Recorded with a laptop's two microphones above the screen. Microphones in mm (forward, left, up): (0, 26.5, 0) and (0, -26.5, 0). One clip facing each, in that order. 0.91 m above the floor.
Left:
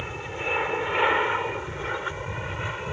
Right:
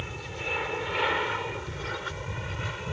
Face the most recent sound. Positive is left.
turn(degrees=20)  # may be behind; listen again after turning